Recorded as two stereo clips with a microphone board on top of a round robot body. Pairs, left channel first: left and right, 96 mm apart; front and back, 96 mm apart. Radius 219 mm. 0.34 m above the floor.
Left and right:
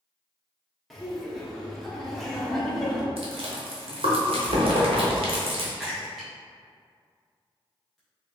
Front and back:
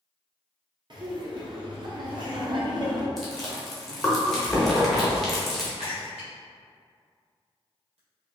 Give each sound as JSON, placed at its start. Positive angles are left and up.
{"t": 0.9, "sound": "laughter", "azimuth_deg": 180, "distance_m": 1.2}
{"t": 3.2, "sound": "chewing", "azimuth_deg": -85, "distance_m": 1.0}
{"t": 5.8, "sound": "a splash", "azimuth_deg": 180, "distance_m": 1.2}